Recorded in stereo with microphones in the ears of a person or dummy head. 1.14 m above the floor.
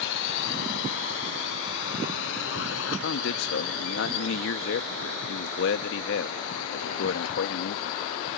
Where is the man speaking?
70° left (ahead or behind).